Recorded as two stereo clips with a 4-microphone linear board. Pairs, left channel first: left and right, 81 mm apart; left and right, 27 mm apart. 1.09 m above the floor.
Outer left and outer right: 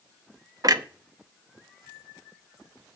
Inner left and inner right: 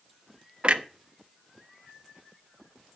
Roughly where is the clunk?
Right.